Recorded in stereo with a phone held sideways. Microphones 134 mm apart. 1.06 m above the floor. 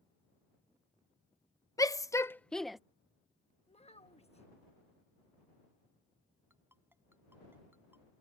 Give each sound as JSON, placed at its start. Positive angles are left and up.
{"t": 1.8, "sound": "a shout", "side_deg": 25}
{"t": 3.7, "sound": "a child speaking", "side_deg": 50}
{"t": 6.5, "sound": "a ringtone", "side_deg": -15}